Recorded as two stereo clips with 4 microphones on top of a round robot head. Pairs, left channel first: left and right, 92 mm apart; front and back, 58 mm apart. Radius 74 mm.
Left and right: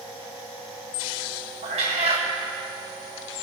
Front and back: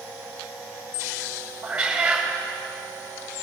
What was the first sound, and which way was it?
A cat meowing, 95° right.